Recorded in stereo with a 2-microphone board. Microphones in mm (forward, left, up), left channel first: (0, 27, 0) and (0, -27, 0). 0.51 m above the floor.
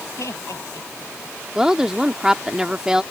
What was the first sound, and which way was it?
Laughter, 70° left (ahead or behind).